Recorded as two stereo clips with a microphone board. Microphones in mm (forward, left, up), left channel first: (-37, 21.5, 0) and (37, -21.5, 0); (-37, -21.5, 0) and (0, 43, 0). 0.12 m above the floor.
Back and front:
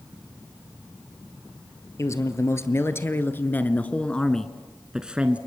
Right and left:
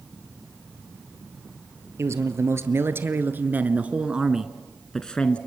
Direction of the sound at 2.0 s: 100° left.